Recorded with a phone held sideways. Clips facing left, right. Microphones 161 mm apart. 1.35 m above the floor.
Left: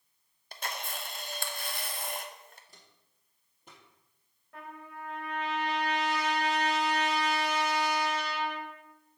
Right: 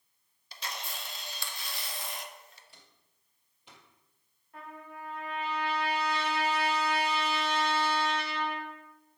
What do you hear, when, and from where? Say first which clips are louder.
0.5 s a camera shutter: left 3 dB; 50° left (ahead or behind), 0.6 m
2.7 s footsteps: left 1 dB; 40° left (ahead or behind), 1.7 m; by 3.8 s 45° left (ahead or behind), 2.5 m
4.5 s a trumpet: even; 80° left, 3 m